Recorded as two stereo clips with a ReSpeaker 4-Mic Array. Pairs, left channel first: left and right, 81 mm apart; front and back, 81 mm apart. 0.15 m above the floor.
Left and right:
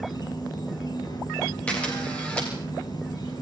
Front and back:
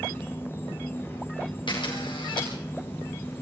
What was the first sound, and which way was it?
An insect, 65° left.